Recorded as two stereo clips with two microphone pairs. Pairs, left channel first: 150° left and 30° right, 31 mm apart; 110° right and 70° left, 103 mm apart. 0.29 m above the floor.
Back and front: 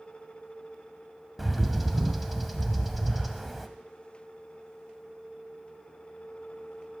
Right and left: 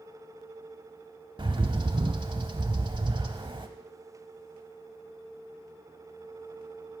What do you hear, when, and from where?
1.4 s a bird: 60° left, 0.8 m